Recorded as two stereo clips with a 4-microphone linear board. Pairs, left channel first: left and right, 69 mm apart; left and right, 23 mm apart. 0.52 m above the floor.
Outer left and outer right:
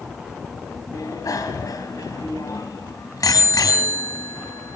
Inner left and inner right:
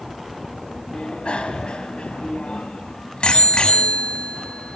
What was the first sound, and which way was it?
A bicycle bell, 60° left (ahead or behind).